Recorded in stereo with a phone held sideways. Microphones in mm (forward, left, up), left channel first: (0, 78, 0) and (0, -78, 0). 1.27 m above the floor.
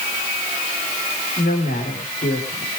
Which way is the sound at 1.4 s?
75° left (ahead or behind).